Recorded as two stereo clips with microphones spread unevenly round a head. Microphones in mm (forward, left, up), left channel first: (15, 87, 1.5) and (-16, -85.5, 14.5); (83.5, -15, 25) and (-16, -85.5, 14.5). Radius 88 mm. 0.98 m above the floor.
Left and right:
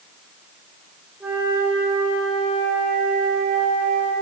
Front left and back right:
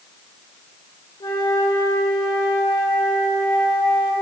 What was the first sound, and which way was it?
A flute, 20° right.